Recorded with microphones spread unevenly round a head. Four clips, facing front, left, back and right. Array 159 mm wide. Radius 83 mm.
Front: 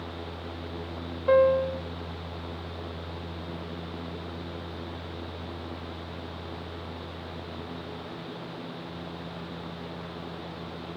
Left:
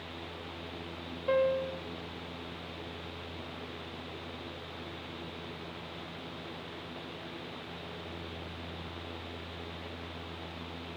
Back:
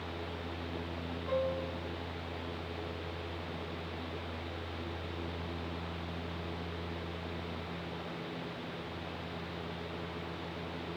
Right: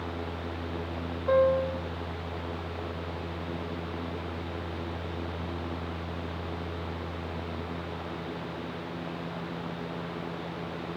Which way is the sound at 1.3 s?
20° right.